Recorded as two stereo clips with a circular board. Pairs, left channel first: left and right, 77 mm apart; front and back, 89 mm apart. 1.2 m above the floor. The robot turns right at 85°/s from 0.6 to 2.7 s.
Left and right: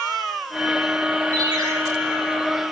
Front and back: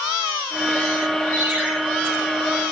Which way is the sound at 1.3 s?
130° right.